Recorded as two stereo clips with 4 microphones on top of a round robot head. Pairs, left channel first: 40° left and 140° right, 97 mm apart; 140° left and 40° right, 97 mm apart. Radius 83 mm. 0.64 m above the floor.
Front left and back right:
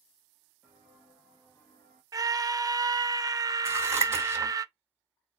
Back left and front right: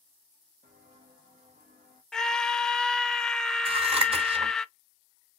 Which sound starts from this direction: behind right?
A scream, at 2.1 s.